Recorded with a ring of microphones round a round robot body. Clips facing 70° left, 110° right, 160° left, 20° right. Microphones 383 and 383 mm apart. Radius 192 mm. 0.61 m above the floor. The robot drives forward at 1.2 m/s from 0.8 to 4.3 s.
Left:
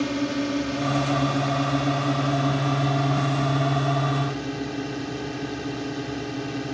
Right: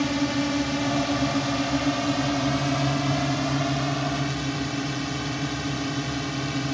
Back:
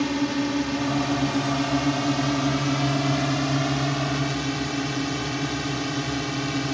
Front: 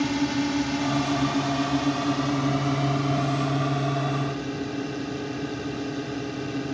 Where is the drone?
95° right; by 6.7 s 155° right.